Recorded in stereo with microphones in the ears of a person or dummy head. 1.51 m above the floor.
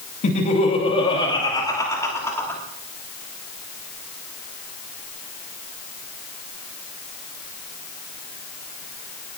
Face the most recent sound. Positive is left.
turn(degrees=15)  # may be behind; listen again after turning